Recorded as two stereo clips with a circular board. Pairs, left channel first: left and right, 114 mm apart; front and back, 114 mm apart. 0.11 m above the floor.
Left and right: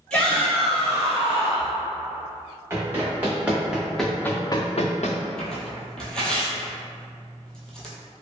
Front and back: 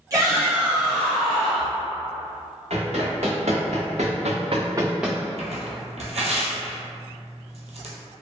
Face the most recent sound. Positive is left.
turn(degrees=175)